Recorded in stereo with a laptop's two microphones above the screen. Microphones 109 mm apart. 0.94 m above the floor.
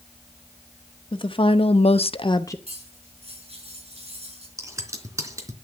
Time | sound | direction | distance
1.1 | a woman speaking | 50° left (ahead or behind) | 1.7 m
2.7 | cutlery clinking | 70° right (ahead or behind) | 6.5 m
4.6 | scissors | 30° right (ahead or behind) | 3 m